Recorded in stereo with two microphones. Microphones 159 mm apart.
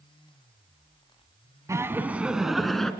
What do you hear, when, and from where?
1.7 s laughter: 20° right (ahead or behind), 1.2 m; by 2.9 s 5° left (ahead or behind), 1.9 m